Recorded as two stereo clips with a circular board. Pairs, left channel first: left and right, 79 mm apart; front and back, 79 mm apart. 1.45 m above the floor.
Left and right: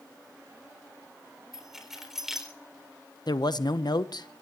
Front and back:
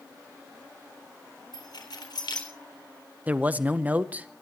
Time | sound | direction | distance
1.5 | keys jangling | 5° right | 4 m
3.3 | a man speaking | 110° left | 0.9 m